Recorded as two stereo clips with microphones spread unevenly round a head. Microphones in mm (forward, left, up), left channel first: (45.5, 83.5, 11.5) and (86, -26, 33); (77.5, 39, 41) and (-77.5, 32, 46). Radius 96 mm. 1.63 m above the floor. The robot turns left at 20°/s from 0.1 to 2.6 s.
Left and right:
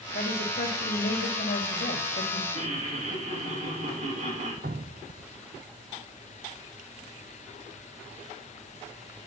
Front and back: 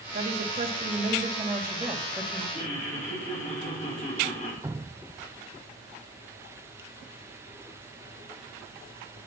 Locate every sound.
0.1 s a woman speaking: 140° left, 2.5 m; by 2.4 s 95° left, 2.5 m
2.5 s laughter: 55° right, 6.5 m
4.6 s dripping: 100° right, 0.6 m